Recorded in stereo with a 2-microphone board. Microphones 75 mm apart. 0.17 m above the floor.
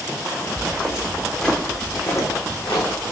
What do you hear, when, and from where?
0.6 s footsteps: 25° right (ahead or behind), 0.8 m; by 3.1 s 70° left (ahead or behind), 1.0 m